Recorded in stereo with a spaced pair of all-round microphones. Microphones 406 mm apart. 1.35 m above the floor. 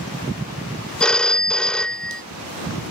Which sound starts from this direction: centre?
A phone ringing, at 1.0 s.